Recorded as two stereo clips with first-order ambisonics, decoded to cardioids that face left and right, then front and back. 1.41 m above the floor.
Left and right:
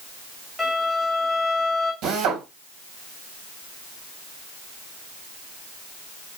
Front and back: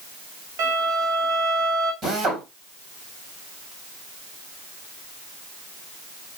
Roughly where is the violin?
Behind.